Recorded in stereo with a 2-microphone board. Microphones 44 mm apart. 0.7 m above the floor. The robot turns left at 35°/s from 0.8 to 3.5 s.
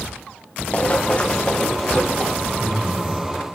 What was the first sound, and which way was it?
Running footsteps, 35° left (ahead or behind).